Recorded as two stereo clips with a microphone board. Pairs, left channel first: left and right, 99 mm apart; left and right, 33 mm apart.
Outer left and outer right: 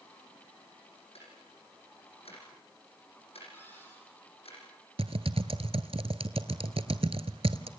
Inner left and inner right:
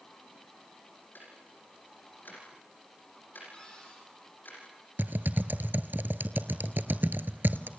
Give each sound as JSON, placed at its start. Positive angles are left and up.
{"t": 1.1, "sound": "ticking", "side_deg": 85, "distance_m": 8.0}
{"t": 3.5, "sound": "a cupboard door", "side_deg": 20, "distance_m": 10.0}
{"t": 5.0, "sound": "typing on a keyboard", "side_deg": -80, "distance_m": 1.2}